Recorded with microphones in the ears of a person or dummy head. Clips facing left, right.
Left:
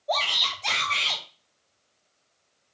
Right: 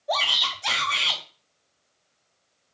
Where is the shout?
10° right (ahead or behind), 0.9 m.